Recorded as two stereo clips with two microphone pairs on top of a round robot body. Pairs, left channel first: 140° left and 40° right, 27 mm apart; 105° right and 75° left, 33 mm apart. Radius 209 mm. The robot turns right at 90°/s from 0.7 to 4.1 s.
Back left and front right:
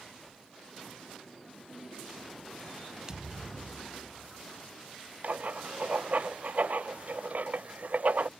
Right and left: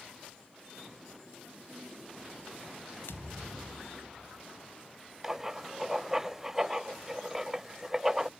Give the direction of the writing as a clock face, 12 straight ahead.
12 o'clock.